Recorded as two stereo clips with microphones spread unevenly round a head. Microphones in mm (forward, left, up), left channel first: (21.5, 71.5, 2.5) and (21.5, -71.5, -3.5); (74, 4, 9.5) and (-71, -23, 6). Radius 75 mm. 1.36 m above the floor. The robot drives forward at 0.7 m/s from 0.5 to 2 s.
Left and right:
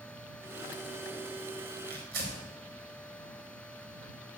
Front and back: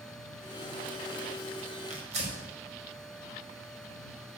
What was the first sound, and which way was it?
Tearing paper, 125° right.